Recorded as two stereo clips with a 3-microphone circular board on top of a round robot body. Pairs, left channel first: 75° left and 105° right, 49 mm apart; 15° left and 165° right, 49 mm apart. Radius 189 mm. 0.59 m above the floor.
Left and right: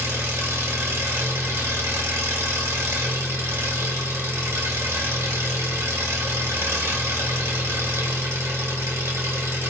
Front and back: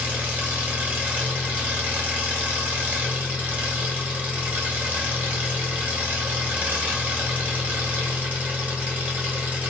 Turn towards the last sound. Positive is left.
turn(degrees=-105)